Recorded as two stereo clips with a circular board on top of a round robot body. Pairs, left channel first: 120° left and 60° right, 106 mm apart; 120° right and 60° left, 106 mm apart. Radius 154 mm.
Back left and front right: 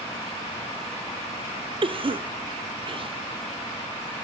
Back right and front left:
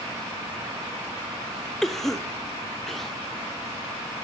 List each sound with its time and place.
1.8 s a cough: 35° right, 1.6 m